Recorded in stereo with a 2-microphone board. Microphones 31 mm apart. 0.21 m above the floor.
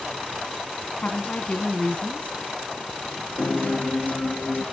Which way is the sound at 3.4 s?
75° left (ahead or behind).